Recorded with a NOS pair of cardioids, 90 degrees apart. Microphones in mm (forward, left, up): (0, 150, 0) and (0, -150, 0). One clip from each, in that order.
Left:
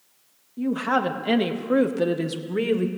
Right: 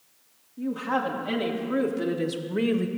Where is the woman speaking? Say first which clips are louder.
Left 4 dB; 65° left, 1.5 m; by 2.9 s 10° left, 1.2 m.